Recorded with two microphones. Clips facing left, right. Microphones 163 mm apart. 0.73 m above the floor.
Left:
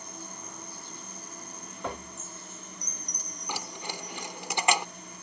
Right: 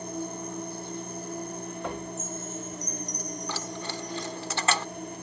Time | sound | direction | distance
0.0 | an insect | 45° right (ahead or behind) | ?
2.2 | a chime | 30° left (ahead or behind) | ?
3.5 | keys jangling | 15° left (ahead or behind) | ?